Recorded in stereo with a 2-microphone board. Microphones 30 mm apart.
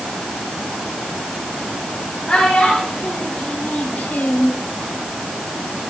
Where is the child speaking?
35° left (ahead or behind), 3 m; by 4.5 s 55° left (ahead or behind), 0.8 m.